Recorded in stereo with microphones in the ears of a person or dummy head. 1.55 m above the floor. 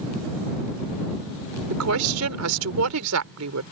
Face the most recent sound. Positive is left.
turn(degrees=-80)